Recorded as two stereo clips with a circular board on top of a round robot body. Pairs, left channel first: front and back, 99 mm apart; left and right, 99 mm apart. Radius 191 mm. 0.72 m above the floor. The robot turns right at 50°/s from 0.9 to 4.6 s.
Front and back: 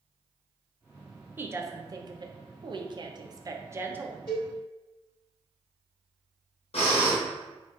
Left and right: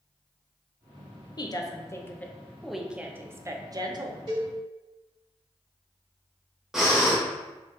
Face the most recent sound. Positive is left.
turn(degrees=-5)